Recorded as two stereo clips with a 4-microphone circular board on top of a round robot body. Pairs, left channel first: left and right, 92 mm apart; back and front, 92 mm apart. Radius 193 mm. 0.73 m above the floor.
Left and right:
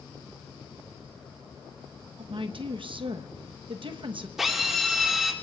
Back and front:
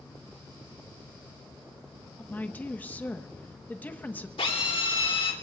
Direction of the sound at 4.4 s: 175° right.